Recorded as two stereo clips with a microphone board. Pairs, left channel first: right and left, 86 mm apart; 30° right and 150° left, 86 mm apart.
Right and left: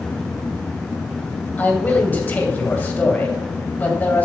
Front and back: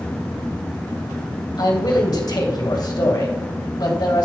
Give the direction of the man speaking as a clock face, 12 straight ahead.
1 o'clock.